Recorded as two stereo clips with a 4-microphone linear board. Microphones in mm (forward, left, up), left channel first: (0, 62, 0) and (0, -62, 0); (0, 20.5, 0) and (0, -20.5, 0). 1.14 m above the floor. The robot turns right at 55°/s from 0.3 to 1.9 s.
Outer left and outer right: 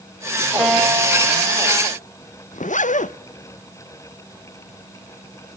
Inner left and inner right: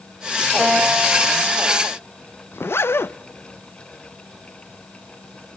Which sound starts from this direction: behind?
A guitar, at 0.6 s.